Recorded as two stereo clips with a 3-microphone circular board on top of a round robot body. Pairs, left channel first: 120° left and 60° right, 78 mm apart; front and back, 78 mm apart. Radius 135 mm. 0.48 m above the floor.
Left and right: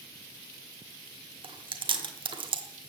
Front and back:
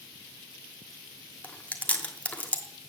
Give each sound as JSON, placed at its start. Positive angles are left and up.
{"t": 1.4, "sound": "chewing", "azimuth_deg": -75, "distance_m": 1.2}